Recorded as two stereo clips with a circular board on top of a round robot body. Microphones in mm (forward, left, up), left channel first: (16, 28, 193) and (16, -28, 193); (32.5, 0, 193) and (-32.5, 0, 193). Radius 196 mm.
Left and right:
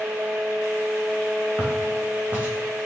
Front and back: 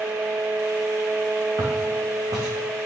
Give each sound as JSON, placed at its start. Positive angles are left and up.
{"t": 1.6, "sound": "footsteps", "azimuth_deg": -150, "distance_m": 1.7}